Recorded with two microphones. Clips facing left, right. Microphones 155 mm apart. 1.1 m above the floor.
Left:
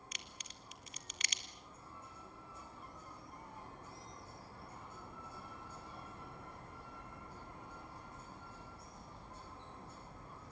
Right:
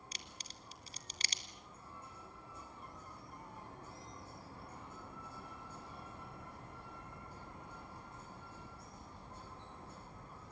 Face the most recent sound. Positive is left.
turn(degrees=-35)  # may be behind; listen again after turning